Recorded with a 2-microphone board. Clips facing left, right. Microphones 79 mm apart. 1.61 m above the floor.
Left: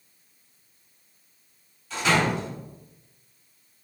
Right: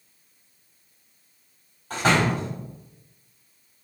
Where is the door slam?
50° right (ahead or behind), 3.5 m.